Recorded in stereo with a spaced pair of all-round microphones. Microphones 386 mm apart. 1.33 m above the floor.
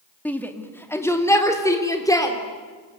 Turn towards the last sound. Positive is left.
turn(degrees=10)  # may be behind; listen again after turning